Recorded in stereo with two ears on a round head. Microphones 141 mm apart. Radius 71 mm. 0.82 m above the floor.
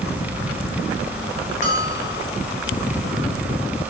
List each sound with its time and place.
1.6 s a bell: 45° left (ahead or behind), 5 m